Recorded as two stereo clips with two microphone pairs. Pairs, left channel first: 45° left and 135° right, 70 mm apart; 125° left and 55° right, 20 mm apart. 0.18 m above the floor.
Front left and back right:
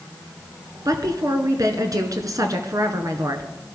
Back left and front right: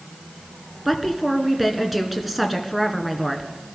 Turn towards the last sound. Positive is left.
turn(degrees=-140)